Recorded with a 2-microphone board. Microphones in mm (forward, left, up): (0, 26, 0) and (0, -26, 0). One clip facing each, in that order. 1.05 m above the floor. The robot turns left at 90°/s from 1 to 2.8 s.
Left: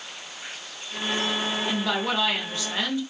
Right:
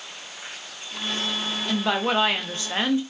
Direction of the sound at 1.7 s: 20° right.